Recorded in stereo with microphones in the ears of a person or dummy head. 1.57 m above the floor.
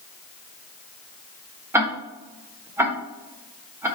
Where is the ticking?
10° right (ahead or behind), 1.2 m.